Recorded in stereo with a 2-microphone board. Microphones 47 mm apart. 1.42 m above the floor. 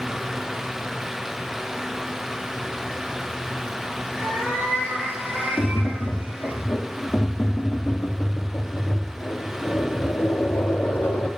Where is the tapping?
50° left (ahead or behind), 0.9 m.